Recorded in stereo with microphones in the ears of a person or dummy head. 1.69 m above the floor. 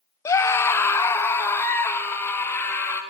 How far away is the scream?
About 0.9 m.